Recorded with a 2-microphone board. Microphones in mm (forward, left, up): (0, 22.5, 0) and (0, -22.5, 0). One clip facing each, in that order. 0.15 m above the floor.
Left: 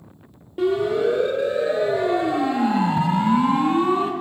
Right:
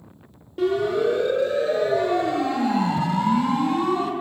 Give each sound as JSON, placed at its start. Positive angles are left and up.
{"t": 0.6, "sound": "a siren", "side_deg": 10, "distance_m": 4.0}